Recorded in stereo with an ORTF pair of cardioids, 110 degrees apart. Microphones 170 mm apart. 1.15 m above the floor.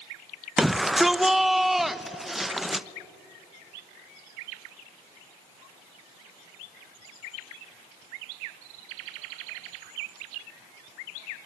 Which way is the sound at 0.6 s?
Straight ahead.